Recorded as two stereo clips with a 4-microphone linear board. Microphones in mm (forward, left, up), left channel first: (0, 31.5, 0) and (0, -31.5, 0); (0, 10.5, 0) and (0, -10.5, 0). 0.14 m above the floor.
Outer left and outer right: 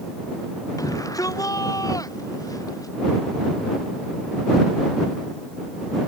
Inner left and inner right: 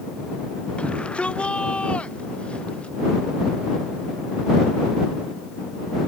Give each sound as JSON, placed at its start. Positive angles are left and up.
{"t": 0.8, "sound": "a shout", "side_deg": 65}